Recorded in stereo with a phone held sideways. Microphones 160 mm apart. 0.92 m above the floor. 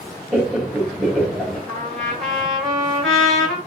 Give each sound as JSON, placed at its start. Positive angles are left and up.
{"t": 0.3, "sound": "laughter", "side_deg": 0, "distance_m": 1.7}
{"t": 1.7, "sound": "a trumpet", "side_deg": 0, "distance_m": 2.5}